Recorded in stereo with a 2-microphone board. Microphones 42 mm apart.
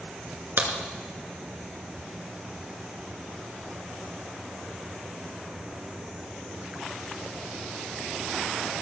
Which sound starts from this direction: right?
A crack, at 0.6 s.